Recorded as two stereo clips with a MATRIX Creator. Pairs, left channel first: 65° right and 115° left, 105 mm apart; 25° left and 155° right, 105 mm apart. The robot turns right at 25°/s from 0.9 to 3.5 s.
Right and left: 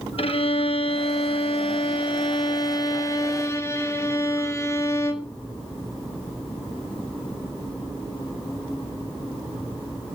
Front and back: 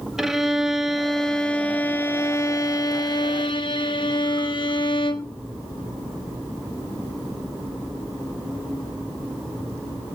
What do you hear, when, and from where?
0.2 s a violin: 70° right, 1.1 m; by 5.3 s 5° right, 1.1 m